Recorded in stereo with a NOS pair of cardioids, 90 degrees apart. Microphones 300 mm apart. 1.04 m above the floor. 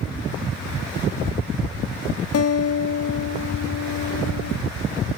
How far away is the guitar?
About 1.4 m.